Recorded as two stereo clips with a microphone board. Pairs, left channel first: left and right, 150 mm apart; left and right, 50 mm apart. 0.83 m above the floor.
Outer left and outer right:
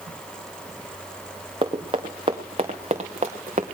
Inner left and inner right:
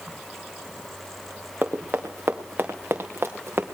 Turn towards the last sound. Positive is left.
turn(degrees=-50)  # may be behind; listen again after turning